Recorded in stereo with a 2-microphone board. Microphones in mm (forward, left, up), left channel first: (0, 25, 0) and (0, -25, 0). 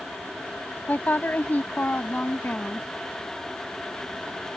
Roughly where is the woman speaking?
Left.